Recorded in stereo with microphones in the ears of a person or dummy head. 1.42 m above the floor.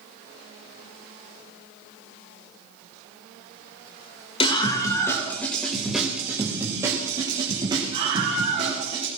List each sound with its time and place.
4.4 s a scream: 35° left (ahead or behind), 2.5 m; by 9.1 s 35° right (ahead or behind), 5 m